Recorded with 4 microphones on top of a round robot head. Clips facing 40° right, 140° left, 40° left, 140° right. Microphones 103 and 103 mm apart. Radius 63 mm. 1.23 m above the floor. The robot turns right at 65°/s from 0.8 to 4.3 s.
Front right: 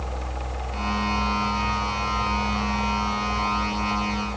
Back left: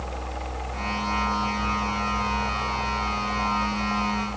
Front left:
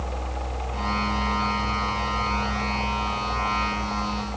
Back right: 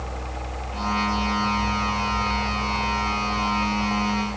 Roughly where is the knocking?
No knocking in this recording.